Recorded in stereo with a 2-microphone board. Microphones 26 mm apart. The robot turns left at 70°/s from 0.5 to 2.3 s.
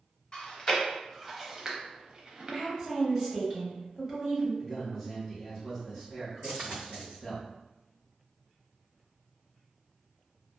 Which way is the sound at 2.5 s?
30° right (ahead or behind).